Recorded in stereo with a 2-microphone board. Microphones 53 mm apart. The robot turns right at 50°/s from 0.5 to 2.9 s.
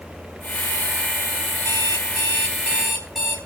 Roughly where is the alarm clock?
Behind left.